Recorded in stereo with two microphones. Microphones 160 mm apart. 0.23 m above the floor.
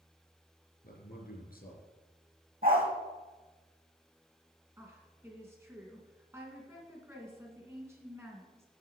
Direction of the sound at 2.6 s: 65° right (ahead or behind).